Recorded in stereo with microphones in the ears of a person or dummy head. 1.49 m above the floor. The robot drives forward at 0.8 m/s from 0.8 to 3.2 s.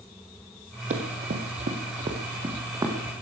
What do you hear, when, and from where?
0.9 s running footsteps: 45° right (ahead or behind), 2.5 m; by 3.0 s 15° right (ahead or behind), 3 m